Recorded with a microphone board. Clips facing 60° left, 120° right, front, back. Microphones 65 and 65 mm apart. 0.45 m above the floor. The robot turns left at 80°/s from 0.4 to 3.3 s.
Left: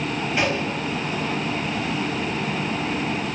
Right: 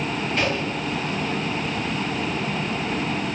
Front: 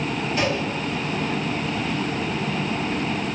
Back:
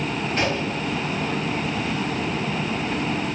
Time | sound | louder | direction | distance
0.4 | a gunshot | left 2 dB, even | 135° left | 5 m